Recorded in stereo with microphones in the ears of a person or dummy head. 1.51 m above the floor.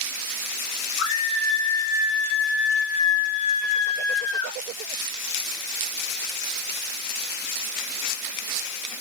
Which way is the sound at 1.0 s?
70° left (ahead or behind).